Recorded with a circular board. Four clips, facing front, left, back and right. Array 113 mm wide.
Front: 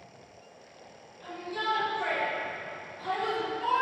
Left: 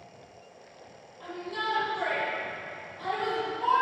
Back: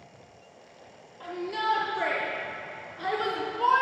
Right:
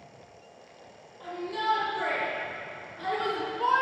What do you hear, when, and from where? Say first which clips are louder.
1.2 s a shout: right 3 dB, back 4 dB; straight behind, 6 m; by 3.8 s 145° right, 3 m